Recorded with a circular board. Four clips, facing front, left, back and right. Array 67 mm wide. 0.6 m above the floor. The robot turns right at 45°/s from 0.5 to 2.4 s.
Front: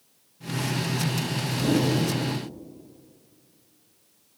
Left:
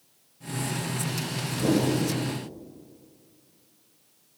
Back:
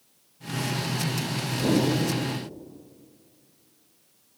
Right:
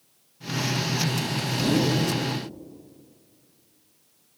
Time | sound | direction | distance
1.6 | a whoosh | 105° left | 2 m